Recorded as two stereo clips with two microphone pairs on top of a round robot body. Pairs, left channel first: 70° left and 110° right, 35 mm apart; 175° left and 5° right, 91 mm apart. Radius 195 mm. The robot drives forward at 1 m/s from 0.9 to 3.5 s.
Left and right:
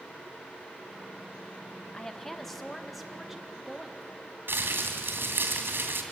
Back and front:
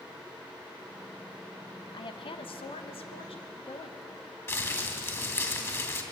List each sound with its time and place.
1.9 s a woman speaking: 140° left, 1.0 m; by 4.4 s 165° left, 2.5 m
4.5 s crumpling: 120° right, 3 m